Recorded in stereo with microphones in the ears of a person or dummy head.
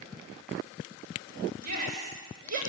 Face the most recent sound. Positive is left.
turn(degrees=-50)  # may be behind; listen again after turning